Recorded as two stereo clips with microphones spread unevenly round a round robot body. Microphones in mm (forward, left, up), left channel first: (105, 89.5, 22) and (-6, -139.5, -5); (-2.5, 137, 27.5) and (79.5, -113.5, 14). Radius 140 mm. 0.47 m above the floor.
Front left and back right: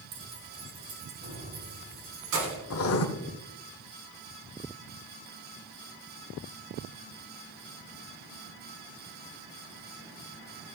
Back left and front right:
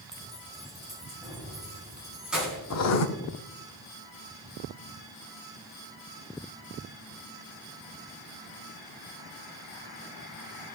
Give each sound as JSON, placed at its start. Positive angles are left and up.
{"t": 0.1, "sound": "keys jangling", "azimuth_deg": -160, "distance_m": 1.5}
{"t": 2.7, "sound": "writing", "azimuth_deg": 100, "distance_m": 0.9}